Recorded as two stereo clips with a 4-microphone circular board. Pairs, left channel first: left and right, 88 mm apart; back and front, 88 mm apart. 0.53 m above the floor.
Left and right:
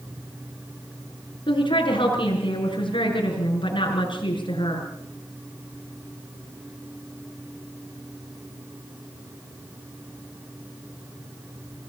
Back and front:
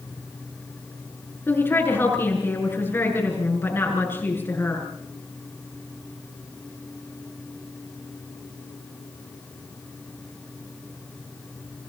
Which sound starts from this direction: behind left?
A woman speaking, at 1.5 s.